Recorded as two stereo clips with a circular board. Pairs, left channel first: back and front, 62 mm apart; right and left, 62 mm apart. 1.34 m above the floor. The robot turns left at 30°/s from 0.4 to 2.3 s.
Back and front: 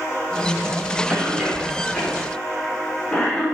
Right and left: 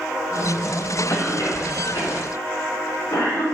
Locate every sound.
1.1 s a cough: 65° right, 3.5 m; by 3.4 s 100° right, 3.5 m